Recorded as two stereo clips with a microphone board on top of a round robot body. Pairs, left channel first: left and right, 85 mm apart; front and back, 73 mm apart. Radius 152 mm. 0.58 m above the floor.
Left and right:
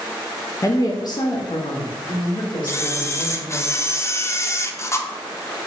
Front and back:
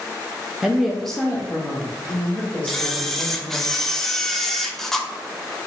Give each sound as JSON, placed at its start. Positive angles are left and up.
{"t": 0.6, "sound": "a woman speaking", "azimuth_deg": 105, "distance_m": 0.7}
{"t": 2.7, "sound": "a camera shutter", "azimuth_deg": 80, "distance_m": 0.7}